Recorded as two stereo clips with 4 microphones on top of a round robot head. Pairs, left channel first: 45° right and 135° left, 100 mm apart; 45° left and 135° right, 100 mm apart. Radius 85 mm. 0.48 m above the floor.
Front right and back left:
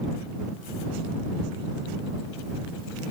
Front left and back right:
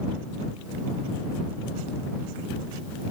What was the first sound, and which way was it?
Only background noise.